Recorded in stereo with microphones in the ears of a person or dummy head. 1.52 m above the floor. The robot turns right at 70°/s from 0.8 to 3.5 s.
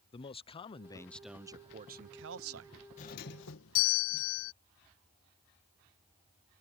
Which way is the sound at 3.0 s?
40° left.